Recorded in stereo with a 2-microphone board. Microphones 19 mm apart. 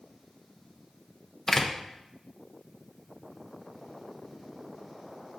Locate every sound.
1.5 s a door slam: 20° left (ahead or behind), 0.6 m